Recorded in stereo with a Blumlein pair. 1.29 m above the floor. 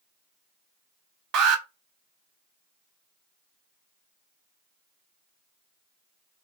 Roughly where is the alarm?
Ahead right.